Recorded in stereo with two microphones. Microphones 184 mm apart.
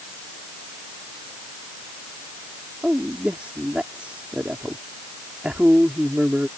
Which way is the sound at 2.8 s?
5° right (ahead or behind).